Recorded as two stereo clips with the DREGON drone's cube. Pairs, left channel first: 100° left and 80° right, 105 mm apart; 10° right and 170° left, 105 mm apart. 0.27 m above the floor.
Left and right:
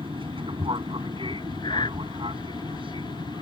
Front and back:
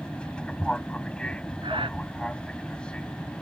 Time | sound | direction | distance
0.0 | an aircraft | 90° right | ?
1.6 | breathing | 140° left | ?